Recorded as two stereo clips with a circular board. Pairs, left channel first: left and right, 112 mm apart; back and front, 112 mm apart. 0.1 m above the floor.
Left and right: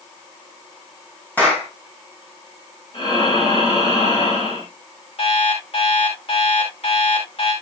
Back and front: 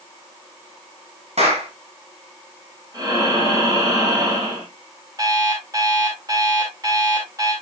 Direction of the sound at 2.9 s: 55° left.